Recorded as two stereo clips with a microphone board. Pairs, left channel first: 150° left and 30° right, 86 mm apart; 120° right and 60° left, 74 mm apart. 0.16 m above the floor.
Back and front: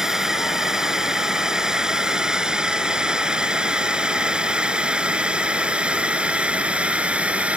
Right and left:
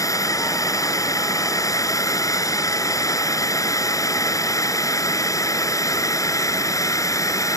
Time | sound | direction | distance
0.0 | a drone | 115° right | ?